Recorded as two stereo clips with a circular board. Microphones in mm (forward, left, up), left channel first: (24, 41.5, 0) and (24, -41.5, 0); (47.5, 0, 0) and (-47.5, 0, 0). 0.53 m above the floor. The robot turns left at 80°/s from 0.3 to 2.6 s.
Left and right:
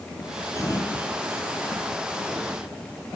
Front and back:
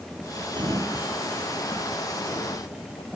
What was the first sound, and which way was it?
A sliding door, 145° left.